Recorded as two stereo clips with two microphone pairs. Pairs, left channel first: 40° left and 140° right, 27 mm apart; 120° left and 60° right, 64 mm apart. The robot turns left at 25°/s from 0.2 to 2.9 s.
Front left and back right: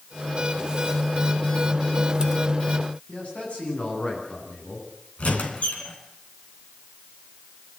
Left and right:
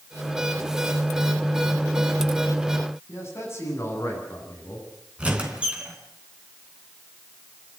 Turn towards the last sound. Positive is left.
turn(degrees=10)